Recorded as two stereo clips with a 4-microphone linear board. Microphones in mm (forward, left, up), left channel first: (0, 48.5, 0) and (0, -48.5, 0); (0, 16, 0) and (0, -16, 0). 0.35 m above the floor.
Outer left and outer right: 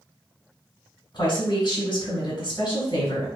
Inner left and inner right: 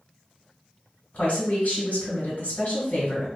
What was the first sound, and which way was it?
A woman speaking, 50° left (ahead or behind).